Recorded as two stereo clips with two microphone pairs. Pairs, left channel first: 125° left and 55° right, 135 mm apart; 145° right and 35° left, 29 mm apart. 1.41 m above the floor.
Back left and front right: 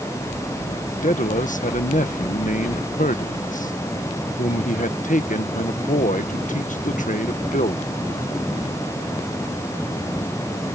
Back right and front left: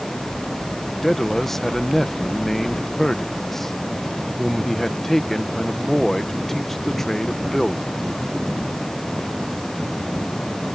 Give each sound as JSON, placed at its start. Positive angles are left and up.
{"t": 1.0, "sound": "a man speaking", "azimuth_deg": 140}